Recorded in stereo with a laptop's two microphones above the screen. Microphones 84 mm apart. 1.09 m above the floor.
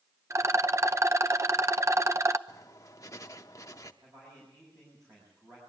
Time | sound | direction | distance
0.3 | a rattle | 35° right (ahead or behind) | 0.7 m
2.5 | writing | 40° left (ahead or behind) | 0.8 m
4.0 | a man speaking | 35° right (ahead or behind) | 6 m